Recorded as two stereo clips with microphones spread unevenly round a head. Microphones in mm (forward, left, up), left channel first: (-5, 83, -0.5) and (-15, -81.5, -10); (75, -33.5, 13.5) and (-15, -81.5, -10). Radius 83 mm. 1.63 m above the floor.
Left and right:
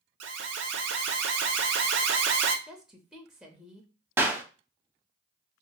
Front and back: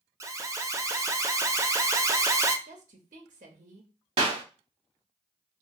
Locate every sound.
0.2 s an alarm: 100° right, 0.6 m
2.7 s a woman speaking: 175° left, 0.6 m
4.2 s a clap: 170° right, 0.9 m